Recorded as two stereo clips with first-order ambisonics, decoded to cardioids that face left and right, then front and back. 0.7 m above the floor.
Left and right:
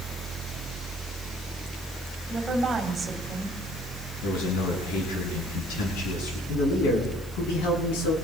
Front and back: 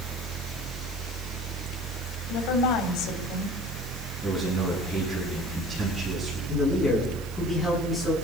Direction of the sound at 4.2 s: 95° left.